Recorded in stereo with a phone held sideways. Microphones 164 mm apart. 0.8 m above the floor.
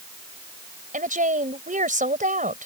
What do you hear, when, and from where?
0.9 s a woman speaking: 50° right (ahead or behind)